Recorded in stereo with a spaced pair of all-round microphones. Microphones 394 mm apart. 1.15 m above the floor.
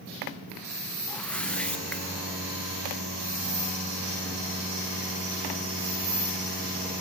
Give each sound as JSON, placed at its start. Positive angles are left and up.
{"t": 1.1, "sound": "a whoosh", "side_deg": 5, "distance_m": 0.7}